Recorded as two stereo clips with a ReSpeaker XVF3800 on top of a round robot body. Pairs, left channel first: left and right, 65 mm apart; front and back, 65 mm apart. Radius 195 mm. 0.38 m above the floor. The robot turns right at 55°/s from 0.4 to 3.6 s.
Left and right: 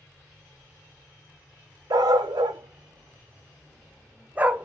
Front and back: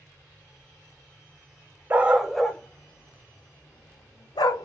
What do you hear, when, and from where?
1.9 s a dog barking: 115° right, 0.7 m; by 4.7 s 20° right, 0.7 m